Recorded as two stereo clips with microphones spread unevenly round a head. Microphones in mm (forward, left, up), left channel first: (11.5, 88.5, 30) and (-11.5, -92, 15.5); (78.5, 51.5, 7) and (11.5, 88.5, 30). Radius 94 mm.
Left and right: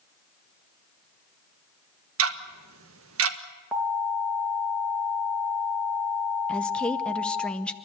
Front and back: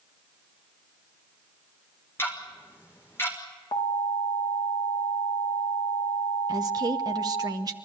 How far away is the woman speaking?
About 0.9 m.